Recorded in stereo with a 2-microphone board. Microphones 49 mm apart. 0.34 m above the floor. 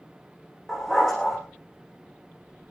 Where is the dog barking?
5° left (ahead or behind), 9 m.